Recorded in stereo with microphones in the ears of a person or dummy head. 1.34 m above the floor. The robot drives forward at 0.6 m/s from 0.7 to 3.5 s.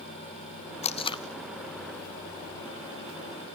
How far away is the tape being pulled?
About 0.6 m.